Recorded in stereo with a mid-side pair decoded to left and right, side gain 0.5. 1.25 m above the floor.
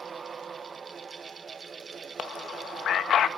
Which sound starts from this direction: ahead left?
A man speaking, at 2.2 s.